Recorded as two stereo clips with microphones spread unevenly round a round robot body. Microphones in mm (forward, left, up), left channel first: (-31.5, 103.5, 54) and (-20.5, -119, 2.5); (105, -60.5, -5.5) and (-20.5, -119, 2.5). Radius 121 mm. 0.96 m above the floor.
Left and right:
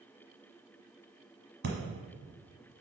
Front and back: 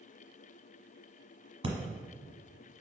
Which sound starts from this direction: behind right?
Breathing, at 1.6 s.